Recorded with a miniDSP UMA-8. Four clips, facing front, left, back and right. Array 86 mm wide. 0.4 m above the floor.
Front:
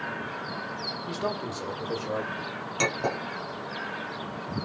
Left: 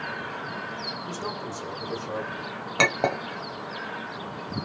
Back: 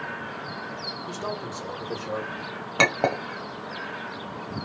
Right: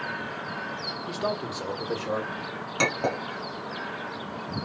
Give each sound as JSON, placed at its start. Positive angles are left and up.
{"t": 1.1, "sound": "a man speaking", "azimuth_deg": -45, "distance_m": 1.2}
{"t": 2.8, "sound": "a clink", "azimuth_deg": 150, "distance_m": 1.0}